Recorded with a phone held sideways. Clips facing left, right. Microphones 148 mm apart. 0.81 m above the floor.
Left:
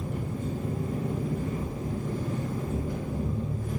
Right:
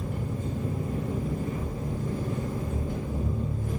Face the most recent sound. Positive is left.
turn(degrees=-55)  # may be behind; listen again after turning